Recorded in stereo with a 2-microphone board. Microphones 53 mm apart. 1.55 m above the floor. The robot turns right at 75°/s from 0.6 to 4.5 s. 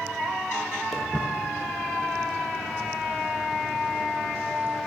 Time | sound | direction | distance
0.9 | footsteps | centre (ahead or behind) | 2 m